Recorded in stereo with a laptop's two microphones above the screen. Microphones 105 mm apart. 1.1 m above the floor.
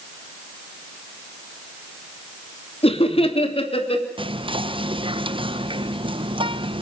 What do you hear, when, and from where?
2.8 s laughter: 60° left (ahead or behind), 2.5 m
4.2 s whispering: 55° right (ahead or behind), 0.9 m